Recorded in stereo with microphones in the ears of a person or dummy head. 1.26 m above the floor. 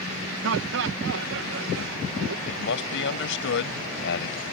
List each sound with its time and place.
0.4 s laughter: 70° right (ahead or behind)
2.5 s a man speaking: 65° left (ahead or behind)